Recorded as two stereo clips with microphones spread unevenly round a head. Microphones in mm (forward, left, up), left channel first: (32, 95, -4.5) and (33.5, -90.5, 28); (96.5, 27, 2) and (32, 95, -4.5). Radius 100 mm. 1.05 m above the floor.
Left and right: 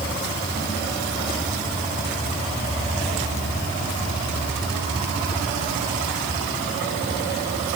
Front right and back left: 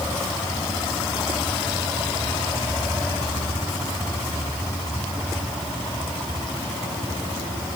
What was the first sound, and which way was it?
Only background noise.